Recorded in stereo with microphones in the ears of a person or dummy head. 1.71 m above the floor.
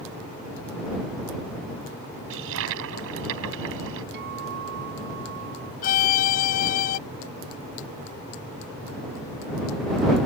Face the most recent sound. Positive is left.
turn(degrees=45)  # may be behind; listen again after turning